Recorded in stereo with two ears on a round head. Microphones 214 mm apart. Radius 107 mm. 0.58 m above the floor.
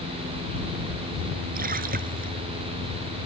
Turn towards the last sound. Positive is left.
turn(degrees=-40)  # may be behind; listen again after turning